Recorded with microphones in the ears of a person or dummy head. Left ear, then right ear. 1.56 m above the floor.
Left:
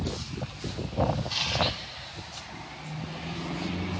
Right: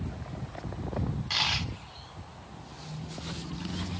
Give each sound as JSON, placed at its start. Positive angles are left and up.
{"t": 1.3, "sound": "a dropped coin", "side_deg": -20, "distance_m": 1.5}